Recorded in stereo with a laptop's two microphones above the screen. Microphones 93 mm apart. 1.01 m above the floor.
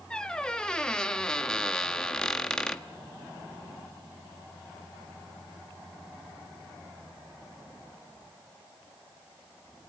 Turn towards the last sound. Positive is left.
turn(degrees=10)  # may be behind; listen again after turning